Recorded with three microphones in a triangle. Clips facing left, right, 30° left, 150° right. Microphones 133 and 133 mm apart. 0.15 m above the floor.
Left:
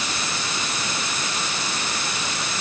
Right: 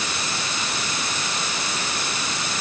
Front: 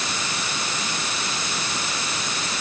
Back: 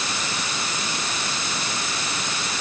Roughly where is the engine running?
I don't hear an engine running.